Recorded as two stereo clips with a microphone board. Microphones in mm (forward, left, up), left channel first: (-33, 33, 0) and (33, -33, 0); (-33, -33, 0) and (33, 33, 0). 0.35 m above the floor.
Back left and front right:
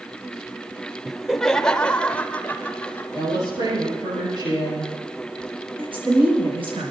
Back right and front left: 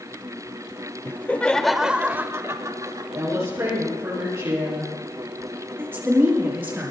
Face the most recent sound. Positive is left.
turn(degrees=-20)